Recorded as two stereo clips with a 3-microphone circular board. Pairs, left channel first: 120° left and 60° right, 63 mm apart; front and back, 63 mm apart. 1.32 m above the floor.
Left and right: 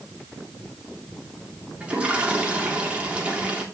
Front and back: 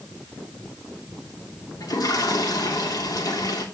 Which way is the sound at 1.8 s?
15° left.